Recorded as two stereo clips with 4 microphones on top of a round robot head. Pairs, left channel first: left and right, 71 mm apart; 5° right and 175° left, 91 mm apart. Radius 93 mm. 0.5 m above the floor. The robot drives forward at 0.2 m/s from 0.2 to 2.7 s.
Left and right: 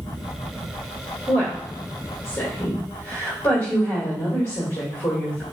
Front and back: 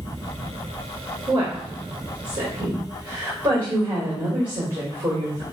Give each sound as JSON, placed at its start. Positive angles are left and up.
{"t": 1.3, "sound": "a woman speaking", "azimuth_deg": 140, "distance_m": 1.4}